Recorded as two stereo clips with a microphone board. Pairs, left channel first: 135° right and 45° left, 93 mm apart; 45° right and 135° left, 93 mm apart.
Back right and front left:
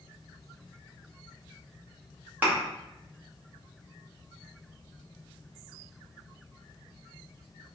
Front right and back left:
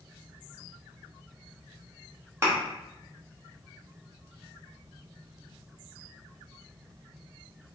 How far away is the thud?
About 0.8 m.